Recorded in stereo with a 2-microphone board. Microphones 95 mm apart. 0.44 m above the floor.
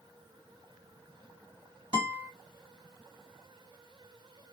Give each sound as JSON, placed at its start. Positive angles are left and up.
{"t": 1.9, "sound": "a guitar", "side_deg": -50, "distance_m": 2.5}